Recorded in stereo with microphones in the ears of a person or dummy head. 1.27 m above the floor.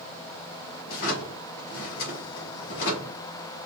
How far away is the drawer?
About 1.6 m.